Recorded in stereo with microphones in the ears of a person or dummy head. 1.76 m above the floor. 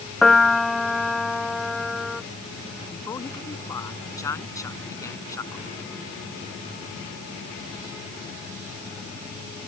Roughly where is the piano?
Centre.